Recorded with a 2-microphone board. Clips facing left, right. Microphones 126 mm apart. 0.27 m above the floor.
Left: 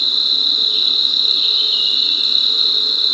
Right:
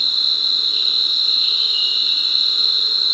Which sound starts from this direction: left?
An insect, at 0.0 s.